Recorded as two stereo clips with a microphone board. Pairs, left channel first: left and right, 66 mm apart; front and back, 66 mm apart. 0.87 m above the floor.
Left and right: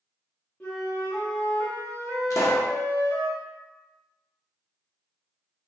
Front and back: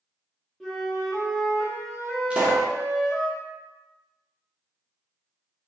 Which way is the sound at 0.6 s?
75° left.